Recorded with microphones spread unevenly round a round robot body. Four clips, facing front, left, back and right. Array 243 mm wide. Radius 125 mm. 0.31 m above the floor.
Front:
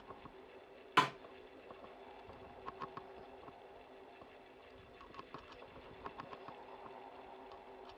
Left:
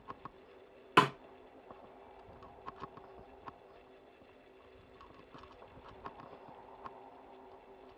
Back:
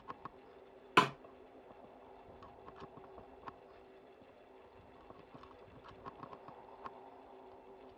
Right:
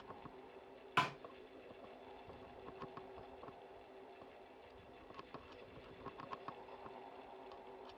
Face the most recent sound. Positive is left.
turn(degrees=110)